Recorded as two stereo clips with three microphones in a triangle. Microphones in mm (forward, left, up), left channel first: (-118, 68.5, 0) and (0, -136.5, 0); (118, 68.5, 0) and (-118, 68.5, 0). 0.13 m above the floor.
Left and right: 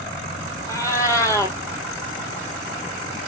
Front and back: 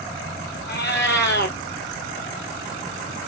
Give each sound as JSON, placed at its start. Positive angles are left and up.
{"t": 0.7, "sound": "a cat meowing", "azimuth_deg": 45, "distance_m": 0.6}